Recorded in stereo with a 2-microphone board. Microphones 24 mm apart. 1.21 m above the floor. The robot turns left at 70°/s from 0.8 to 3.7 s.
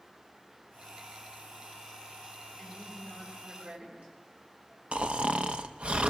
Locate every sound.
2.6 s a woman speaking: 5° right, 8 m; by 4.1 s 80° right, 8 m
4.9 s snoring: 55° right (ahead or behind), 0.8 m